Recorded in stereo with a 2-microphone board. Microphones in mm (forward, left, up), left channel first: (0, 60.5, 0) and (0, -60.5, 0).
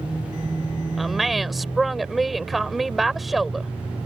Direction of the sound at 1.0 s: Centre (ahead or behind).